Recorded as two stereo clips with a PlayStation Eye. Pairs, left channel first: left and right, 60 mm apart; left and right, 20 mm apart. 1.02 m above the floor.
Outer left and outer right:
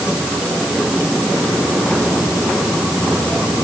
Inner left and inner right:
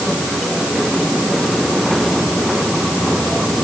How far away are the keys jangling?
I don't hear keys jangling.